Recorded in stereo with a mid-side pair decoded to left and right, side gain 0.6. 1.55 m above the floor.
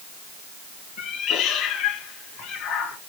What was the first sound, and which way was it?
A cat meowing, 60° left.